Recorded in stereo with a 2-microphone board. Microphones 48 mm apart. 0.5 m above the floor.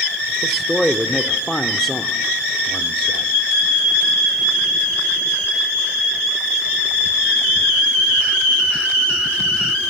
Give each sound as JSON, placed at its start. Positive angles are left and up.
{"t": 0.4, "sound": "a man speaking", "side_deg": 5, "distance_m": 0.9}